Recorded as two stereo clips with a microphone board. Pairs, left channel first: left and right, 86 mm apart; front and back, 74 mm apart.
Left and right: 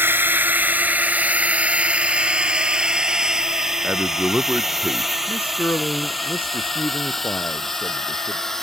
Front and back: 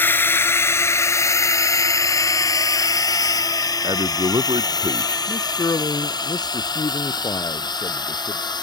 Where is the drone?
40° right; by 8.6 s 5° left.